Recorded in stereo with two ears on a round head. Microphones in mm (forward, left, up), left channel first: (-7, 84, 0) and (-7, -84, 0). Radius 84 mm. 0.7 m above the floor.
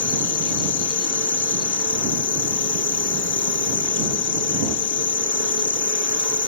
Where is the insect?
70° left (ahead or behind).